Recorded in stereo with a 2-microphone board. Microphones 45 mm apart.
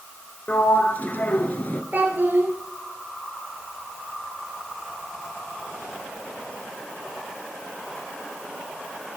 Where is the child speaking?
40° right (ahead or behind), 1.8 m.